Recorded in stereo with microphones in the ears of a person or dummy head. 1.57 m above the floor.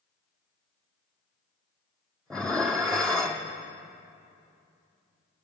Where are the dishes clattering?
5° left (ahead or behind), 0.6 m.